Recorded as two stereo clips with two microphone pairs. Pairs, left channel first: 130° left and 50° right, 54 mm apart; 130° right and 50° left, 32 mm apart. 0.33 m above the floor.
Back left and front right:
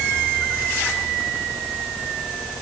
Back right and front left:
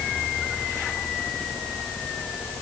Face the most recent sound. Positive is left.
No sound to turn to.